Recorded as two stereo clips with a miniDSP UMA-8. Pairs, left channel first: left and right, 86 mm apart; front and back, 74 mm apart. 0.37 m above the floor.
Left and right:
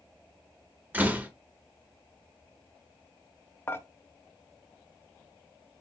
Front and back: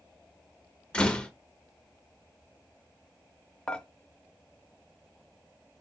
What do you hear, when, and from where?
0.9 s a door slam: 55° right, 0.7 m
3.7 s dishes clattering: 65° left, 0.5 m